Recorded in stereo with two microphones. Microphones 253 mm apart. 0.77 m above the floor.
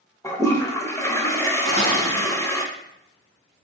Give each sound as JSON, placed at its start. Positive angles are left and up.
{"t": 0.2, "sound": "a toilet flushing", "side_deg": 10, "distance_m": 0.5}
{"t": 1.6, "sound": "dishes clattering", "side_deg": 60, "distance_m": 1.9}